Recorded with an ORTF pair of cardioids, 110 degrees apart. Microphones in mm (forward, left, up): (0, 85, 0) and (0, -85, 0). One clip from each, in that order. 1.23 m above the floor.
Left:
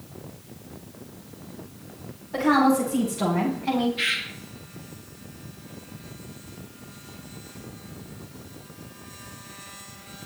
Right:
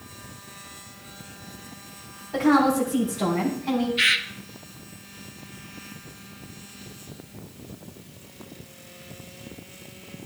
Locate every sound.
2.3 s a woman speaking: 15° right, 4 m; by 3.9 s 15° left, 3.5 m
4.0 s a bird: 35° right, 0.9 m